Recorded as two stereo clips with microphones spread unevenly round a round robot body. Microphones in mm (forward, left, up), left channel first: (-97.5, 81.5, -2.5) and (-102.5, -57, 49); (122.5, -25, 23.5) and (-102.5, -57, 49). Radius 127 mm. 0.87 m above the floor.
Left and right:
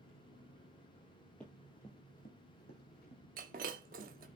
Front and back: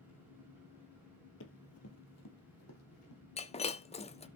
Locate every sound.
0.0 s an engine running: 70° left, 5.5 m
1.4 s running footsteps: 15° right, 1.3 m; by 3.2 s 45° left, 2.5 m
3.4 s breaking glass: 55° right, 0.7 m